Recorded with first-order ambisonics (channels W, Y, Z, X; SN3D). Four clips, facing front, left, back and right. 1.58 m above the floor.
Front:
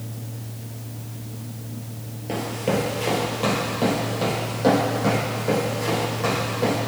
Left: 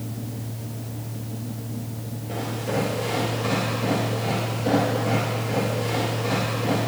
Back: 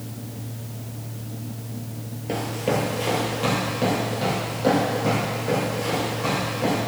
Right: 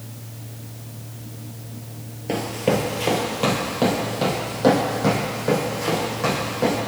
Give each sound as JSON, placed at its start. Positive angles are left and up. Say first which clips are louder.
{"t": 2.3, "sound": "running footsteps", "louder": "right 6 dB, even", "azimuth_deg": -95, "distance_m": 2.0}